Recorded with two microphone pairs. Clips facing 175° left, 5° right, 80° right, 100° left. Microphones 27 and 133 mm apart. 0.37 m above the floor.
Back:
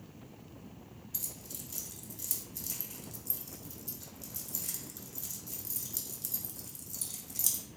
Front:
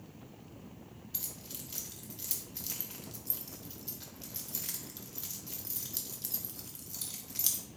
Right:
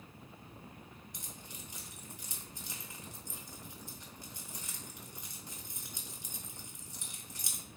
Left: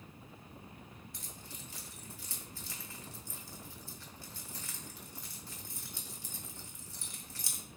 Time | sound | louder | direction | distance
1.1 | keys jangling | even, even | 25° right | 0.7 m